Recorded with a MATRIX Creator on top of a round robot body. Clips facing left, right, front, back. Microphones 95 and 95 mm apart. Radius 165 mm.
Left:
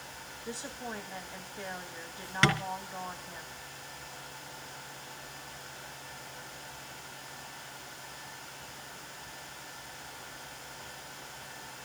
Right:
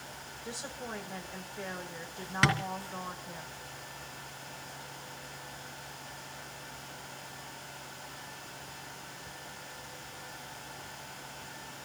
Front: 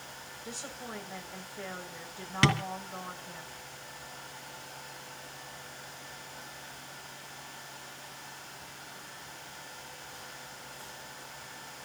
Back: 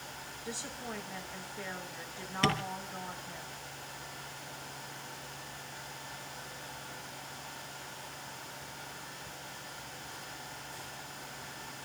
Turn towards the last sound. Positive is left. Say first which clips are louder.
# left 1 dB, front 3 dB
turn(degrees=-5)